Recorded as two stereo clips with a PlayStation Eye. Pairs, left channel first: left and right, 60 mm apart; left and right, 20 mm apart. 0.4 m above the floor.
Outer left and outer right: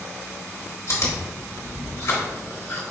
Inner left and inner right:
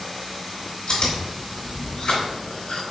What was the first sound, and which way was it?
Chewing, 60° left (ahead or behind).